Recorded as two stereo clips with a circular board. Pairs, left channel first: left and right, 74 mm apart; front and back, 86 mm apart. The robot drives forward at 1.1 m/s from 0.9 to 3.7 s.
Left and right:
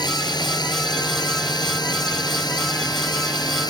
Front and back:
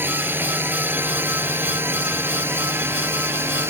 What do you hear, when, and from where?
0.0 s a drone: 115° left